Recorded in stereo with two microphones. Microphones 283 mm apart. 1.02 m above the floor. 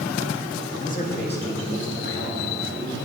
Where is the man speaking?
25° left (ahead or behind), 1.5 m; by 3.0 s 45° left (ahead or behind), 5 m.